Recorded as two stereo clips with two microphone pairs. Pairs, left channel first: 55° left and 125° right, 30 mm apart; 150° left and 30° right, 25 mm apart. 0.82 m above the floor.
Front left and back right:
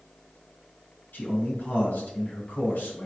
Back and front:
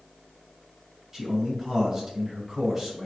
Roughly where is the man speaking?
Ahead left.